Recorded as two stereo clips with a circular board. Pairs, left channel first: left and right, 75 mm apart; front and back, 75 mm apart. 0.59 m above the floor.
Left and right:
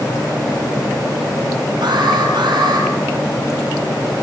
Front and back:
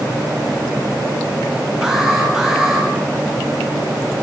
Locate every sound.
1.8 s an alarm: 90° right, 5.5 m